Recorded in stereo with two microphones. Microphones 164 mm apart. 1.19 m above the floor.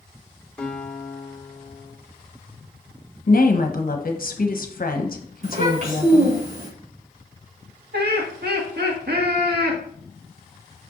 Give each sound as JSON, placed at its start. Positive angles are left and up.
{"t": 0.6, "sound": "a guitar", "side_deg": 5, "distance_m": 1.9}
{"t": 3.3, "sound": "a woman speaking", "side_deg": 60, "distance_m": 1.1}
{"t": 5.4, "sound": "a child speaking", "side_deg": -50, "distance_m": 4.0}
{"t": 7.9, "sound": "laughter", "side_deg": -75, "distance_m": 1.9}